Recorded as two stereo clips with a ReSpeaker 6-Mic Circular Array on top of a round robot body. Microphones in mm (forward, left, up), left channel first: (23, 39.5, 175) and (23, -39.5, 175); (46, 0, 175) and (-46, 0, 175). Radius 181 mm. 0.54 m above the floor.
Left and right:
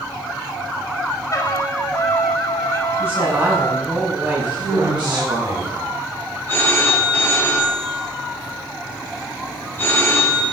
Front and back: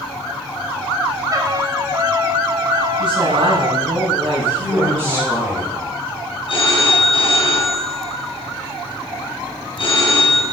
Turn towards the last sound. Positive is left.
turn(degrees=25)